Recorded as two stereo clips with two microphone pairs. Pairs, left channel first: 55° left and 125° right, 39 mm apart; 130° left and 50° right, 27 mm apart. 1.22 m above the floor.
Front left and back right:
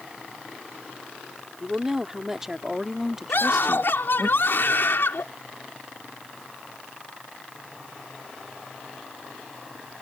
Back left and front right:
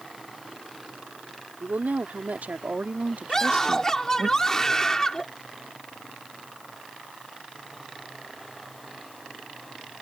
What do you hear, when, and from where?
1.6 s a woman speaking: 50° right; by 4.3 s 45° right
3.3 s a scream: 60° left